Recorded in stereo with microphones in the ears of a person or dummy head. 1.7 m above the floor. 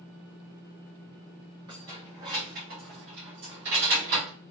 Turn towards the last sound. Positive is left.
turn(degrees=-55)  # may be behind; listen again after turning